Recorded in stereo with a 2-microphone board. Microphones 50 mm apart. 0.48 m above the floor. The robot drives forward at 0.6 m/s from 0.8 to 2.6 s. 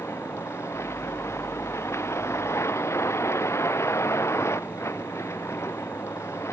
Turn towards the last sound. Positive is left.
turn(degrees=60)  # may be behind; listen again after turning